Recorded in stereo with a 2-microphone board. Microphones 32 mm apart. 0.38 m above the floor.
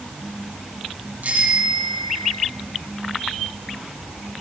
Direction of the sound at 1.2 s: 50° right (ahead or behind).